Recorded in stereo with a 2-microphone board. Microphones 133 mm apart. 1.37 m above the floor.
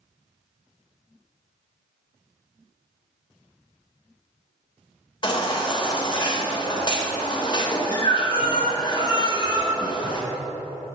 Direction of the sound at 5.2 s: 35° left (ahead or behind).